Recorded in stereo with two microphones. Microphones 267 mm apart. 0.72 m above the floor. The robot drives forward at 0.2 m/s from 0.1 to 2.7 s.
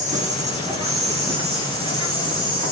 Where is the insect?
25° right (ahead or behind), 1.1 m; by 2.7 s 20° right (ahead or behind), 1.5 m.